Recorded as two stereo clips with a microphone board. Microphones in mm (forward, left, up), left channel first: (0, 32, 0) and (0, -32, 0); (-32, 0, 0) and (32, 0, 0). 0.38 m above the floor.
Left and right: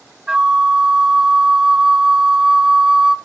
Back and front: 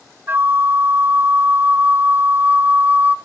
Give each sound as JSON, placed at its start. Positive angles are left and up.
{"t": 0.3, "sound": "a flute", "azimuth_deg": -20, "distance_m": 0.8}